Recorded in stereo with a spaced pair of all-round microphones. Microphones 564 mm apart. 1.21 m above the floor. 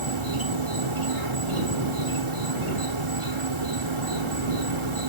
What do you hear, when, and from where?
0.0 s an insect: 60° right (ahead or behind)